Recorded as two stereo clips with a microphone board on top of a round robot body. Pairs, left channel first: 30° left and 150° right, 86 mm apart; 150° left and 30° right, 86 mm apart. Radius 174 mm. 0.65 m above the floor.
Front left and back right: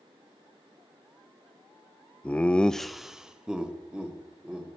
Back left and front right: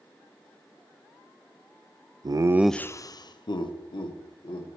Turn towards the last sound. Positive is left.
turn(degrees=130)